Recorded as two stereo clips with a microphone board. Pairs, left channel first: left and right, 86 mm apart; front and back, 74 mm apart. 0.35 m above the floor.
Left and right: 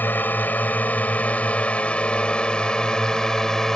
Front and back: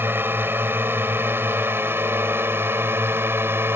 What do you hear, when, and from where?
0.0 s a drone: 145° left; by 3.8 s 170° left